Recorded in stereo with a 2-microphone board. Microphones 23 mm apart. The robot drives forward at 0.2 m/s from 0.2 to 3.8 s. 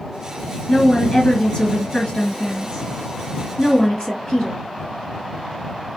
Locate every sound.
0.7 s a woman speaking: 40° left (ahead or behind), 2.0 m; by 4.6 s 35° left (ahead or behind), 2.5 m